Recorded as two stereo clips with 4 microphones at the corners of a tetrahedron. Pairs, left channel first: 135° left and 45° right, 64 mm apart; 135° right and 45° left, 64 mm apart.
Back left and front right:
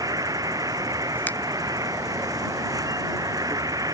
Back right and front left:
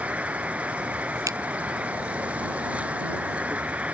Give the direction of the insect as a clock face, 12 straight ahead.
1 o'clock.